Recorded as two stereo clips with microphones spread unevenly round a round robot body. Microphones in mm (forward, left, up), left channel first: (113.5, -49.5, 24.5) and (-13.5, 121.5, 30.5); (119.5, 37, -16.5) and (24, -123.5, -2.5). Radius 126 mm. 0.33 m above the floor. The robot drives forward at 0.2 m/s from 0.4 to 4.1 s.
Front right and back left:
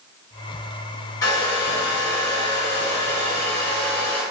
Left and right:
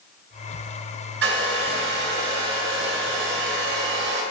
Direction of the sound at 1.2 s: 130° right.